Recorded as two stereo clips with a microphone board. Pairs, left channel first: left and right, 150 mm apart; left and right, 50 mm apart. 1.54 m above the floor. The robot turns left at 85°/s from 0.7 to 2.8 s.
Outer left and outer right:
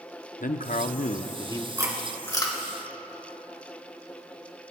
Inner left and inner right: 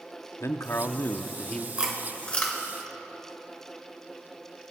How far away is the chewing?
About 2 m.